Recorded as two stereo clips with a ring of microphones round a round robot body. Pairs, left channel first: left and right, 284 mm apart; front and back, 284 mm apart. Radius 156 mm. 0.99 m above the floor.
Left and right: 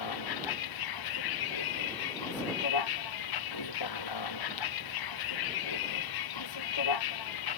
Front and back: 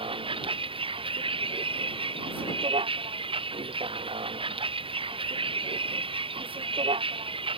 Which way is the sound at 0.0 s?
105° left.